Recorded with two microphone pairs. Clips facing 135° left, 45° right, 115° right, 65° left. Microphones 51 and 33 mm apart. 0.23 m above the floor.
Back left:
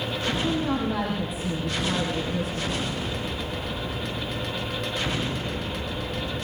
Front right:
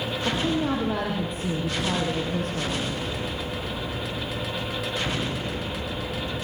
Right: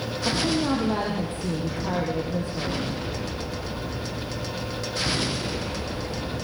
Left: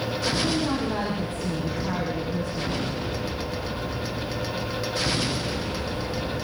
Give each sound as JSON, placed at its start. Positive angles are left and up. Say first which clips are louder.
{"t": 0.2, "sound": "a woman speaking", "louder": "front right 1 dB, right 2 dB", "azimuth_deg": -85, "distance_m": 7.0}